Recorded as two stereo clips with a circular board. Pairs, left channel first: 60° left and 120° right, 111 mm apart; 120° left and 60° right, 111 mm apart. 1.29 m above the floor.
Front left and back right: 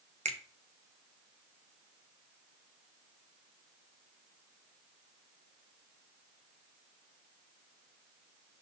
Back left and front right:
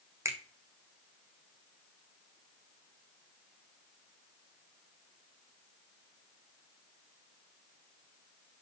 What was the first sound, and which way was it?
A finger snap, 125° right.